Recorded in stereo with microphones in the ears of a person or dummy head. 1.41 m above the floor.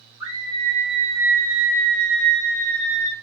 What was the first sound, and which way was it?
A scream, 20° right (ahead or behind).